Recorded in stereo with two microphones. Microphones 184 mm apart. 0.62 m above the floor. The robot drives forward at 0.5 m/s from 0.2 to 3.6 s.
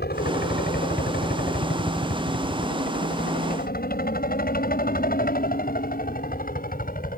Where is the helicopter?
60° left (ahead or behind); by 7.2 s 50° left (ahead or behind).